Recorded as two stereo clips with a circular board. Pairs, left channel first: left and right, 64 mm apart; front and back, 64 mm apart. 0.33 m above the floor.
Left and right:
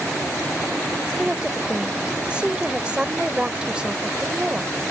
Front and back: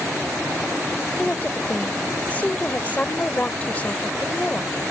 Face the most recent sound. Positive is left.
turn(degrees=-35)